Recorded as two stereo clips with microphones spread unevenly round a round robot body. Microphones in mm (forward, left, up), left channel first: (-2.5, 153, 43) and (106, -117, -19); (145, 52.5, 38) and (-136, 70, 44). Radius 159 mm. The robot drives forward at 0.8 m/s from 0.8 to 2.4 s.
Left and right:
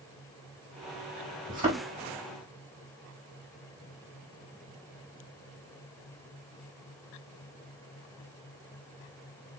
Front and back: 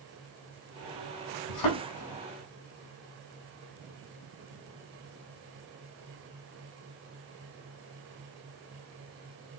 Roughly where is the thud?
Ahead.